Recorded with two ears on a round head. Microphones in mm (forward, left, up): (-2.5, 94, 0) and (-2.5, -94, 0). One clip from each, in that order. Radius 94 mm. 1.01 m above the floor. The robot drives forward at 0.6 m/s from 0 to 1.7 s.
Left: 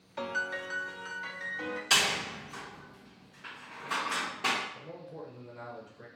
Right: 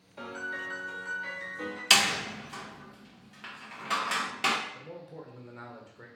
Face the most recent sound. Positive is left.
turn(degrees=-25)  # may be behind; listen again after turning